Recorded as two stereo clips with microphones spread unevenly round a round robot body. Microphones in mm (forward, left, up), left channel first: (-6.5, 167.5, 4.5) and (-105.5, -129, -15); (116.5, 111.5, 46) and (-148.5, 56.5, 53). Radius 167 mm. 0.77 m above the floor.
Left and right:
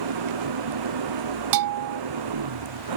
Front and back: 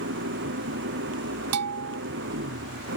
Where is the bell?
125° right.